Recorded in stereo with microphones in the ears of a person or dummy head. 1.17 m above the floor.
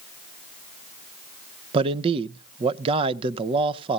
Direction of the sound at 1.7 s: 30° right (ahead or behind).